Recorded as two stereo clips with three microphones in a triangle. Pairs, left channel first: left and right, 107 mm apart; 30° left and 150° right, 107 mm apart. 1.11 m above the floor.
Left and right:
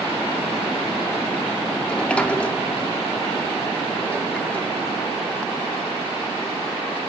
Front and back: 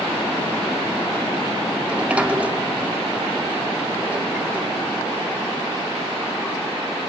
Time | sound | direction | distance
1.9 | a sliding door | 150° left | 0.7 m